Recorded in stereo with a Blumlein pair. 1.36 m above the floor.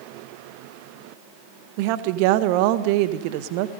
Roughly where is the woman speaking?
Ahead right.